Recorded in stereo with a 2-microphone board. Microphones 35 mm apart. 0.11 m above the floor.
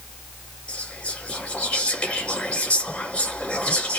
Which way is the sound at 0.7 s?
30° left (ahead or behind).